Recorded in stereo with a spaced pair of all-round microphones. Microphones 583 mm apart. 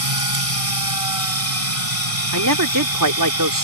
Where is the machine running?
80° right.